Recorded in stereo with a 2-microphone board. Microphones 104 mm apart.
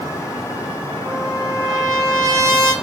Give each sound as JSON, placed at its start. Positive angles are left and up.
{"t": 1.1, "sound": "a trumpet", "side_deg": -35, "distance_m": 6.0}